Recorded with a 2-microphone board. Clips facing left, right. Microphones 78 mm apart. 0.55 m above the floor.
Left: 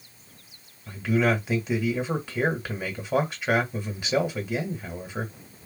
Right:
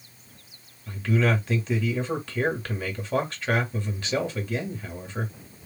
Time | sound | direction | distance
0.9 | a man speaking | 10° left (ahead or behind) | 1.9 m